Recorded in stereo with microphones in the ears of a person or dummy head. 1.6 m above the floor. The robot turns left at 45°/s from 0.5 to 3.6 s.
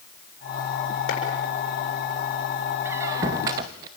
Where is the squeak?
15° right (ahead or behind), 0.9 m; by 3.9 s 20° right (ahead or behind), 0.9 m.